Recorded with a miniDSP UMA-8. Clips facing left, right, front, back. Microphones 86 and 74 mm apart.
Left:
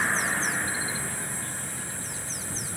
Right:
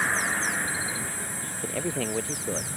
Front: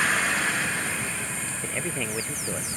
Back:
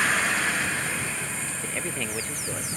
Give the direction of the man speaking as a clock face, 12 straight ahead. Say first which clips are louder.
Right 9 dB, front 2 dB; 3 o'clock.